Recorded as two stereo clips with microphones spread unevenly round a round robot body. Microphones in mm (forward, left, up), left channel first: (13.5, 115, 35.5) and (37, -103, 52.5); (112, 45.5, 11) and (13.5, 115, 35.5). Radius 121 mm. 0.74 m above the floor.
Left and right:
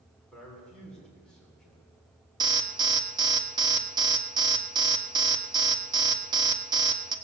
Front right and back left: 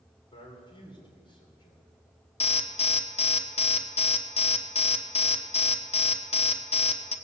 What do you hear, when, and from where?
0.3 s a man speaking: 10° left, 3 m
2.4 s an alarm: 10° right, 1.1 m